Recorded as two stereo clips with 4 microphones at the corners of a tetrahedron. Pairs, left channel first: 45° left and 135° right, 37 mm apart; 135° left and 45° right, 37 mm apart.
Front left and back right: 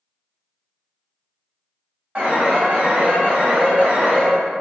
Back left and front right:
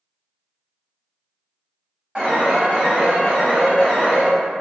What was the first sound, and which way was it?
An alarm, 110° right.